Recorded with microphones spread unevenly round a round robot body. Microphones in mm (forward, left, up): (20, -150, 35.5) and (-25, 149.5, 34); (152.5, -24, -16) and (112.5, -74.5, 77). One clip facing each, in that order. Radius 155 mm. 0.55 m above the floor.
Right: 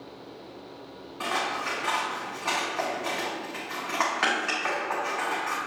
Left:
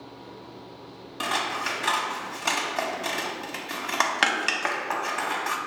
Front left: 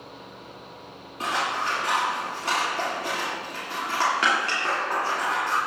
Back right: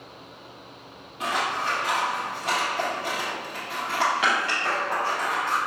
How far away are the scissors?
About 0.8 m.